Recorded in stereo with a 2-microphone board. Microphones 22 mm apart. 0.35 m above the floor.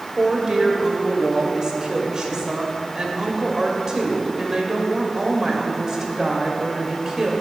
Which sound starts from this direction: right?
A woman speaking, at 0.2 s.